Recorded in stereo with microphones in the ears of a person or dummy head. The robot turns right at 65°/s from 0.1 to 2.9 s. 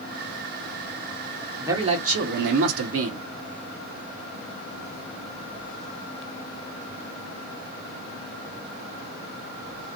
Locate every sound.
1.6 s a man speaking: 160° right, 1.2 m; by 3.2 s 75° right, 1.2 m